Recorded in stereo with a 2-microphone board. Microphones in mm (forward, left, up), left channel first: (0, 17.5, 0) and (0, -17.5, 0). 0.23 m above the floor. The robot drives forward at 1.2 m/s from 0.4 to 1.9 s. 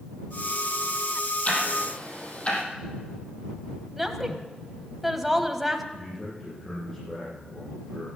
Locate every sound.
1.4 s ticking: 40° left (ahead or behind), 3.5 m; by 2.6 s 35° left (ahead or behind), 4 m
4.0 s a woman speaking: 5° right (ahead or behind), 1.3 m
5.9 s a man speaking: 15° left (ahead or behind), 8 m